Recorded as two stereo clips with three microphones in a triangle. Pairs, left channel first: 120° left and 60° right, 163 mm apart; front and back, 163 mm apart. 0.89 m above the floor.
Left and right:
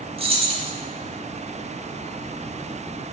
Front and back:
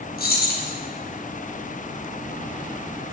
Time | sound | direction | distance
0.2 | keys jangling | 5° right | 0.5 m